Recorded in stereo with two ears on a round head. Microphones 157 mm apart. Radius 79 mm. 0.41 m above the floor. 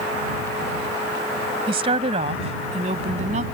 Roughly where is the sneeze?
I don't hear a sneeze.